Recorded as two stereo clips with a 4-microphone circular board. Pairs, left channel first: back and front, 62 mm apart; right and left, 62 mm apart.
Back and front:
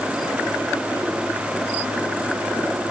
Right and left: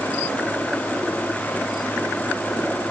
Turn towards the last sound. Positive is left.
No sound to turn to.